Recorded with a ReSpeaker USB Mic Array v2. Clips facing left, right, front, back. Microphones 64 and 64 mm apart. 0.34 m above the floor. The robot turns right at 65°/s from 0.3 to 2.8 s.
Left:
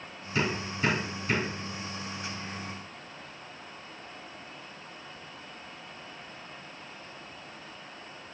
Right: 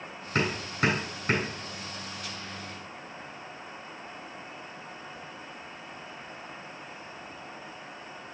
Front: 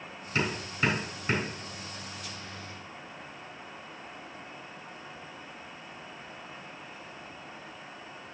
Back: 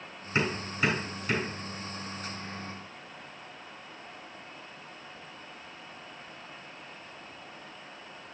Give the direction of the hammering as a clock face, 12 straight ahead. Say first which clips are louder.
Right 2 dB, back 1 dB; 4 o'clock.